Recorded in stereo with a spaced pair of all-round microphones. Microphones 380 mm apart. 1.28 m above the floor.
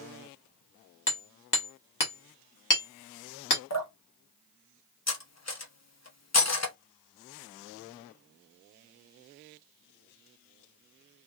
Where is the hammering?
55° left (ahead or behind), 1.1 m.